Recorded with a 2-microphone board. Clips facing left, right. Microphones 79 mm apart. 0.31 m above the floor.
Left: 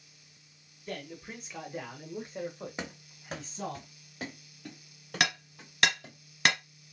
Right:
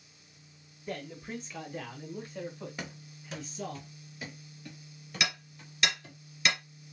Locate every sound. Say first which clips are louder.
0.9 s a man speaking: right 2 dB; 10° right (ahead or behind), 0.9 m; by 3.8 s 45° left (ahead or behind), 1.6 m
2.8 s running footsteps: left 2 dB; 20° left (ahead or behind), 0.7 m; by 6.2 s 85° left, 2.5 m
5.2 s hammering: left 4 dB; 70° left (ahead or behind), 2 m